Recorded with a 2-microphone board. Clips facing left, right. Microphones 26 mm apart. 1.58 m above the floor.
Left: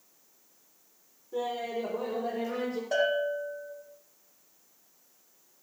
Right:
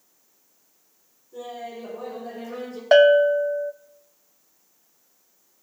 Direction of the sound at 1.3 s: 50° left (ahead or behind).